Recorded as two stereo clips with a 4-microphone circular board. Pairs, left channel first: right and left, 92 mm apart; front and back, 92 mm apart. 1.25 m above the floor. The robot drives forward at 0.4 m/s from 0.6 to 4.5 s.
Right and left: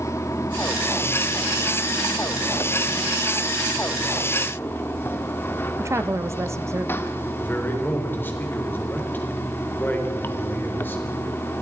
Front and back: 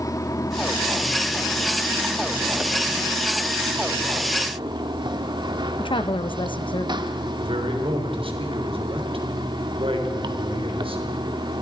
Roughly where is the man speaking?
Behind.